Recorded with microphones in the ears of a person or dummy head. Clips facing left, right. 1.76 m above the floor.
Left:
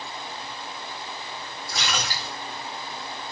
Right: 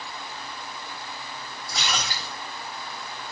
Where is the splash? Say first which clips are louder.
Even; 20° right (ahead or behind), 6 m.